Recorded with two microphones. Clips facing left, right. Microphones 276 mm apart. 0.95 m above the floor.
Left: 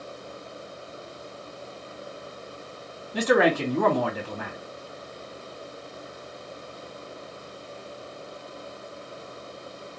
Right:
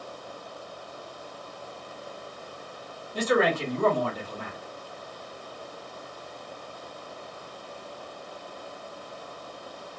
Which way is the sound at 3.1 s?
75° left (ahead or behind).